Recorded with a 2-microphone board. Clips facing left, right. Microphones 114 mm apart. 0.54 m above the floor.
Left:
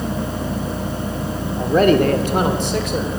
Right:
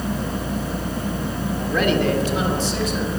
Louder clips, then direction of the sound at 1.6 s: Left 7 dB; 30° left (ahead or behind).